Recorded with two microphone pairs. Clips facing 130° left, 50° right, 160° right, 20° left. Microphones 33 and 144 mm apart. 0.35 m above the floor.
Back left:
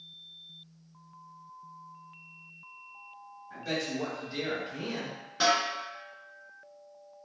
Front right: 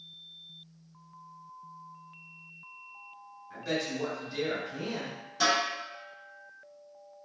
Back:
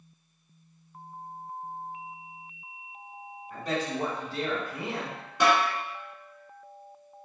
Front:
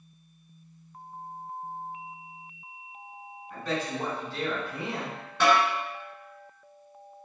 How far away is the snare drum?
About 1.5 m.